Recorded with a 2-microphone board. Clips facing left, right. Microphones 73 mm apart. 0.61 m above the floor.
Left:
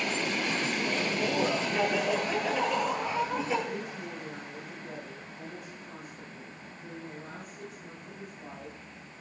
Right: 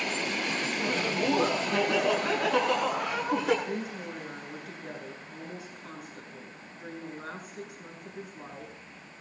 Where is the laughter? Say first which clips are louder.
Right 1 dB; 80° right, 8 m; by 3.5 s 85° right, 10 m.